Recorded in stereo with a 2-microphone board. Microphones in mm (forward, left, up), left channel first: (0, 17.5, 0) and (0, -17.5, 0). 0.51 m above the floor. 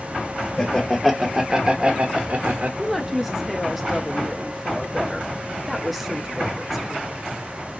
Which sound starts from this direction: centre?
A woman speaking, at 2.8 s.